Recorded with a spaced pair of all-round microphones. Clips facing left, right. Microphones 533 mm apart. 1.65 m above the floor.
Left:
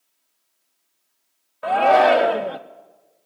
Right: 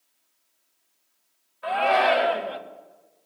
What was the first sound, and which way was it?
A shout, 65° left (ahead or behind).